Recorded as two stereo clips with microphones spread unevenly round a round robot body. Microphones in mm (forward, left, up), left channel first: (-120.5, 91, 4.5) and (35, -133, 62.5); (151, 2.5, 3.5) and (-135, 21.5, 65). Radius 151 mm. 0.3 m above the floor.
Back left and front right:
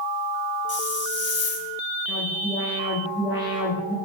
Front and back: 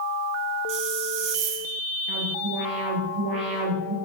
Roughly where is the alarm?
Behind.